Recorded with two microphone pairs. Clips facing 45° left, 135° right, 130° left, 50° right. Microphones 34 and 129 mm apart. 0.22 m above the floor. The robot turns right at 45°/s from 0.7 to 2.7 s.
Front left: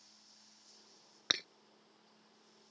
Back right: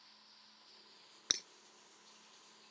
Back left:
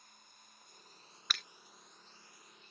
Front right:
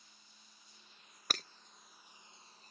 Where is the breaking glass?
10° right; by 1.4 s 5° right.